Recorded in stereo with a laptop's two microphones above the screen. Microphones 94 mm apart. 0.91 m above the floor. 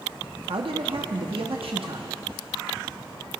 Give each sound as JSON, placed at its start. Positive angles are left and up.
{"t": 0.5, "sound": "a man speaking", "side_deg": -75, "distance_m": 1.0}